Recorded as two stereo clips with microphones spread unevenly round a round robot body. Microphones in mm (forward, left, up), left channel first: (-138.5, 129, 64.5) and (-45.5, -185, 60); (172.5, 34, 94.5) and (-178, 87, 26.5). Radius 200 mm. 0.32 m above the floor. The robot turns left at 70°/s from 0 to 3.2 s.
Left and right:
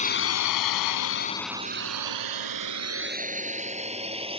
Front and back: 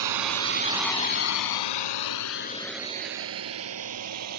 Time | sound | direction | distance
0.0 | a drone | 175° left | ?